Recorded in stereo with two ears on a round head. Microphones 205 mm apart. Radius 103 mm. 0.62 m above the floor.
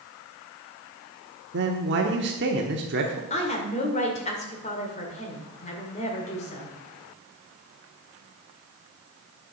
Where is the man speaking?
50° right (ahead or behind), 1.1 m.